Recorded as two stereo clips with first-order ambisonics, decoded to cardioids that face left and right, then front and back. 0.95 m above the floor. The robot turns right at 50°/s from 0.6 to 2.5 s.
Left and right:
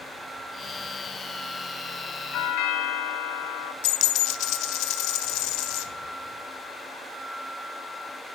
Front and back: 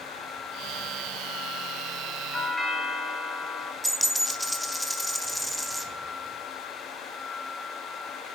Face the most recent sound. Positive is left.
turn(degrees=90)